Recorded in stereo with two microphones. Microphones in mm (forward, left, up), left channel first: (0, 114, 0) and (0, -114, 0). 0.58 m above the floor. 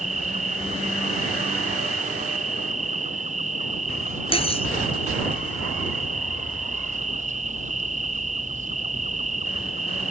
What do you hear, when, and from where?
0.0 s an insect: 30° right (ahead or behind)
4.3 s cutlery clinking: 25° left (ahead or behind)